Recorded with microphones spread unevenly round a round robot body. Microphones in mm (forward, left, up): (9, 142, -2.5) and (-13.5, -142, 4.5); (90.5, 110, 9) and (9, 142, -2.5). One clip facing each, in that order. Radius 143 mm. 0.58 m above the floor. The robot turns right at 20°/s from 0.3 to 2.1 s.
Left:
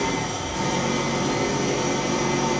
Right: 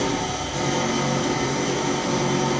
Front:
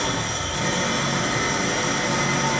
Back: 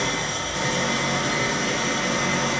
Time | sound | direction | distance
0.0 | an engine running | 65° right | 0.9 m